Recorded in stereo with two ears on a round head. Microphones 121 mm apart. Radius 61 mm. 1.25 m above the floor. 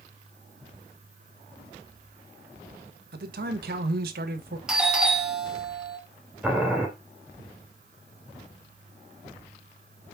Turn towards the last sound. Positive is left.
turn(degrees=-10)  # may be behind; listen again after turning